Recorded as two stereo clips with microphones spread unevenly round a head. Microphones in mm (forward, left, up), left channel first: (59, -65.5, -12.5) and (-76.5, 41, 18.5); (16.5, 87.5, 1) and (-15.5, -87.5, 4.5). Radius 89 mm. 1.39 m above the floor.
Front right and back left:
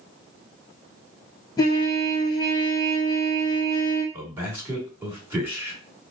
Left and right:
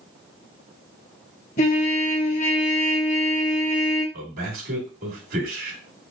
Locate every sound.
1.6 s a trumpet: 35° left, 1.0 m
4.1 s a man speaking: 140° right, 2.5 m